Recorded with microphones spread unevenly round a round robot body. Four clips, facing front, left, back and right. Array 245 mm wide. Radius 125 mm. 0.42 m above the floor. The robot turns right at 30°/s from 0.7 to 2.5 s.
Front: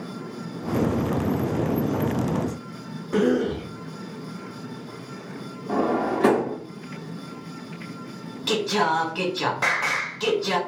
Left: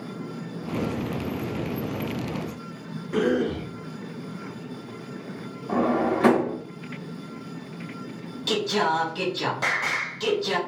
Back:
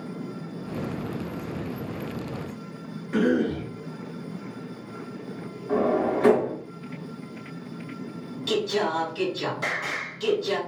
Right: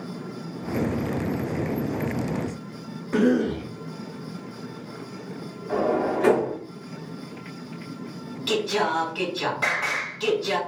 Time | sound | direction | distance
3.1 | a cough | 35° right | 1.0 m
5.7 | a drawer | 55° left | 1.9 m
8.5 | singing | 5° left | 1.5 m